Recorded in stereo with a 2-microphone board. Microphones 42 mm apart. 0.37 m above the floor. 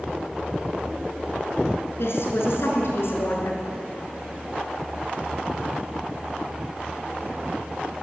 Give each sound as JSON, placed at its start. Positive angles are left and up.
{"t": 2.0, "sound": "a woman speaking", "side_deg": 70, "distance_m": 5.0}